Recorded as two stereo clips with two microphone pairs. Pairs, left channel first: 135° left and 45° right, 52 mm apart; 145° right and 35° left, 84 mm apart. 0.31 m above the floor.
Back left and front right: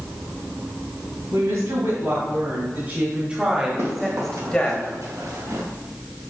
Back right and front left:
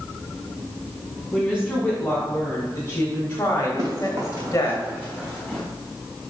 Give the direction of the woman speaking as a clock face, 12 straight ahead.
2 o'clock.